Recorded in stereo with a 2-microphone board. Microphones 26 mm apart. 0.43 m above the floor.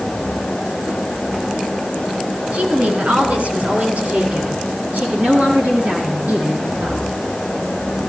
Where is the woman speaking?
60° right (ahead or behind), 4 m; by 7.0 s 85° right, 6.5 m.